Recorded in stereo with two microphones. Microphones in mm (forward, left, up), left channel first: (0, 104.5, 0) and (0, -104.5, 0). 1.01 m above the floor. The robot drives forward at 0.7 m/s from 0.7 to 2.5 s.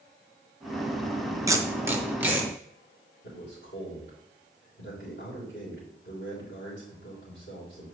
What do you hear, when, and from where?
1.5 s tape being pulled: 15° right (ahead or behind), 0.6 m; by 2.5 s 5° right (ahead or behind), 1.3 m
3.2 s a man speaking: 60° left (ahead or behind), 3.5 m